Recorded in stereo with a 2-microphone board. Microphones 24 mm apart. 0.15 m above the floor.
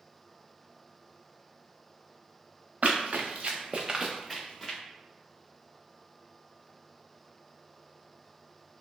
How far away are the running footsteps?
About 0.8 m.